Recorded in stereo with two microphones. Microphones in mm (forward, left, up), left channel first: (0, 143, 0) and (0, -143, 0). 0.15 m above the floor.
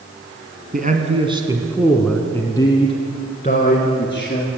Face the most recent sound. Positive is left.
turn(degrees=35)  # may be behind; listen again after turning